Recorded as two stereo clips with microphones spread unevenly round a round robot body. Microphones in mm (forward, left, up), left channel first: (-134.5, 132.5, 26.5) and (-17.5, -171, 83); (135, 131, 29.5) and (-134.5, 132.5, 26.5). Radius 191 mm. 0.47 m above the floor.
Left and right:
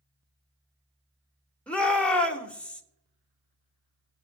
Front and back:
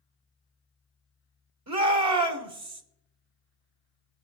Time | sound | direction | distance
1.7 | a shout | 170° right | 2 m